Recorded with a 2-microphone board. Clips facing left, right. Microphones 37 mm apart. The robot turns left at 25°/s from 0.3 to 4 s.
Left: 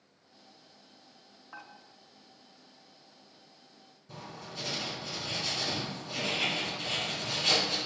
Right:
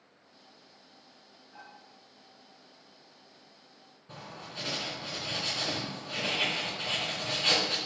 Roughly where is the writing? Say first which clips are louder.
Even; right.